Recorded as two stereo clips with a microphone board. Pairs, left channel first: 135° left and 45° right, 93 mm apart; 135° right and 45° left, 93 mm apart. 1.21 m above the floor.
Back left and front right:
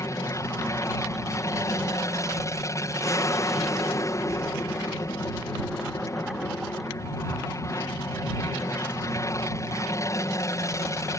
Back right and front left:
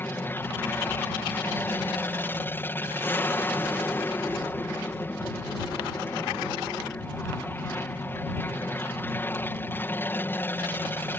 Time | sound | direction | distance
0.0 | an aircraft | 170° left | ?